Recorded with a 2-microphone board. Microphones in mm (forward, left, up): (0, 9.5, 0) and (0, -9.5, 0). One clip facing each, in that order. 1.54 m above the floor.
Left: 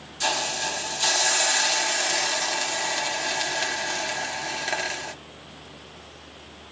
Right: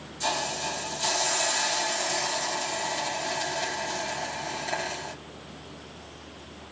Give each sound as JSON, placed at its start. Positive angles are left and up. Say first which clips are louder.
{"t": 0.2, "sound": "a hiss", "louder": "left 3 dB", "side_deg": 45, "distance_m": 1.4}